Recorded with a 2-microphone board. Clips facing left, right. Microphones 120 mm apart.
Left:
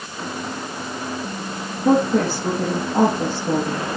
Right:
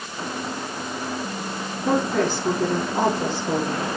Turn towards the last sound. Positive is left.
turn(degrees=35)  # may be behind; listen again after turning